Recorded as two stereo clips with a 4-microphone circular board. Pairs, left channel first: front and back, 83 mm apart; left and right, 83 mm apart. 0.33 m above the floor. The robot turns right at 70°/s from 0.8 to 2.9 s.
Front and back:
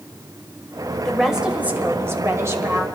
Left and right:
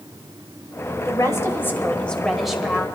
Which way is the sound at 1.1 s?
85° left.